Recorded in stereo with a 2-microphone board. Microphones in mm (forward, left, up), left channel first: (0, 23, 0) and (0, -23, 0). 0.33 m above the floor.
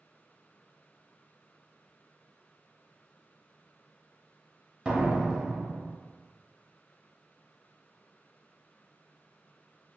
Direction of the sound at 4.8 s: 20° right (ahead or behind).